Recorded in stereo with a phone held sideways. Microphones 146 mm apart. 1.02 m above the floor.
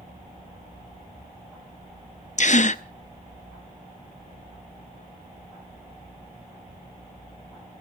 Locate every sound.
2.4 s a gasp: 55° left (ahead or behind), 0.6 m